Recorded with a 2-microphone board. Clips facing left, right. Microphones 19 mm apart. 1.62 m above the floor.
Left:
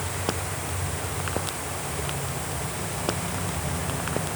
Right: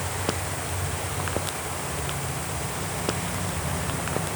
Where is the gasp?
I don't hear a gasp.